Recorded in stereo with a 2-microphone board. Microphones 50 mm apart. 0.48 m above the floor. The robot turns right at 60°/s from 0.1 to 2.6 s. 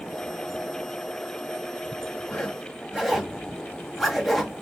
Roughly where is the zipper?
Centre.